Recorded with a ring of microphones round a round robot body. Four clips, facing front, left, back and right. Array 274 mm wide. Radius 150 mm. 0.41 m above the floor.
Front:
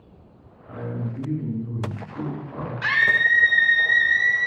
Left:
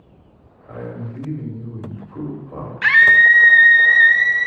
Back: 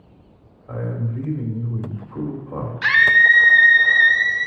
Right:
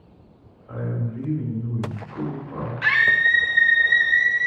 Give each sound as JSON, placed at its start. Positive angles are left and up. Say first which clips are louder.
{"t": 0.7, "sound": "a man speaking", "louder": "right 1 dB, back 3 dB", "azimuth_deg": 165, "distance_m": 2.5}
{"t": 2.8, "sound": "a scream", "louder": "left 8 dB, back 6 dB", "azimuth_deg": 115, "distance_m": 0.8}